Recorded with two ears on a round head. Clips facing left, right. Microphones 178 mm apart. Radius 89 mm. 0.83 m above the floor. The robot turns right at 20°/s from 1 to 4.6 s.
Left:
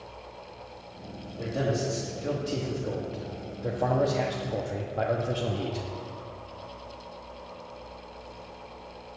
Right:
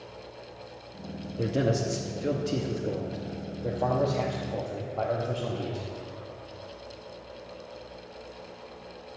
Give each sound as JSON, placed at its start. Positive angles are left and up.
{"t": 1.4, "sound": "a man speaking", "azimuth_deg": -45, "distance_m": 0.9}